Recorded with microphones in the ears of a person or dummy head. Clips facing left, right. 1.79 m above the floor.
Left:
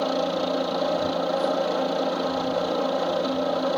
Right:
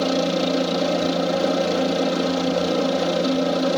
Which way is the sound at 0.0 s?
30° right (ahead or behind).